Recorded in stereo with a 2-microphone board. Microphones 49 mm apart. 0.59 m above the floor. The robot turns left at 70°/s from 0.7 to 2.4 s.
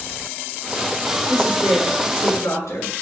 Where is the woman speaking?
160° left, 8.5 m; by 2.9 s 80° left, 8.5 m.